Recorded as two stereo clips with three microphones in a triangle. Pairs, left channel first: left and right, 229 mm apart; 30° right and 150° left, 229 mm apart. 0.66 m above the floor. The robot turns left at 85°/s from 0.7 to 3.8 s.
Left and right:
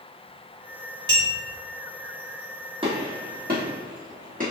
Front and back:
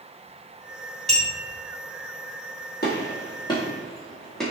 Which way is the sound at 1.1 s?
115° right.